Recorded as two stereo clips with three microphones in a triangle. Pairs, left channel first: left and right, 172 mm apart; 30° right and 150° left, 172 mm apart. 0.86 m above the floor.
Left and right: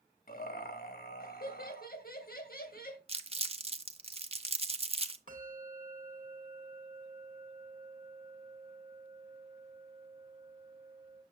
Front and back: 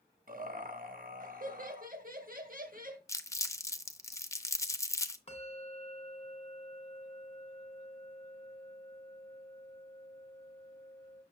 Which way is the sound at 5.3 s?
75° right.